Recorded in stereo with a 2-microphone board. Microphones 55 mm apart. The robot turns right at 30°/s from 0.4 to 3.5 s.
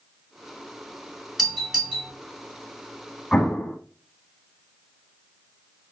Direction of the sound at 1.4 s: 5° right (ahead or behind).